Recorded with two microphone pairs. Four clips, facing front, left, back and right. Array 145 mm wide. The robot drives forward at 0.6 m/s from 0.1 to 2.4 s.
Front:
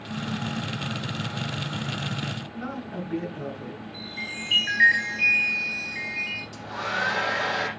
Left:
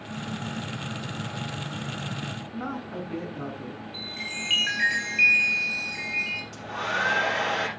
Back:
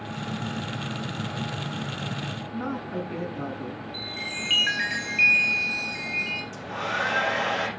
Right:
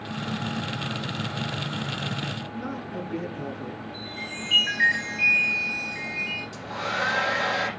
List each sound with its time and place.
2.5 s a woman speaking: 135° left, 9 m
3.9 s a chime: straight behind, 9 m
6.5 s a hair dryer: 120° left, 7 m